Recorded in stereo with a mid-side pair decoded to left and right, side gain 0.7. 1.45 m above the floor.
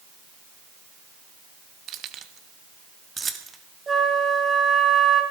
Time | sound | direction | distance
1.9 | keys jangling | 50° right | 1.5 m
3.9 | a flute | 20° right | 4 m